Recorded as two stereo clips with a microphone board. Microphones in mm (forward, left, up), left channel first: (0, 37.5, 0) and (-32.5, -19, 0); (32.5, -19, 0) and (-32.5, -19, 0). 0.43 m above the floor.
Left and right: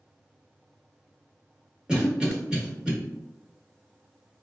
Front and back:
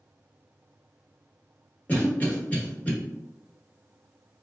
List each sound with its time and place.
1.9 s a cough: 50° right, 1.0 m